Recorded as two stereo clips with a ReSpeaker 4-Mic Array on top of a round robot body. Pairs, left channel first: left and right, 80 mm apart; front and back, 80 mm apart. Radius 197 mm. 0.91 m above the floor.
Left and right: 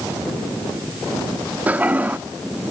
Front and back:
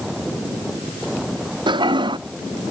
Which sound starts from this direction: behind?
A toilet flushing, at 1.7 s.